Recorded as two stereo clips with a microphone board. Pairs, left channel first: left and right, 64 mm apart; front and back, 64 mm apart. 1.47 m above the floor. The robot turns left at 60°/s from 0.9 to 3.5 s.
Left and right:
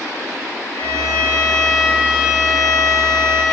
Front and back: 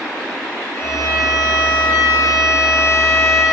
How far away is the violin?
About 6.5 m.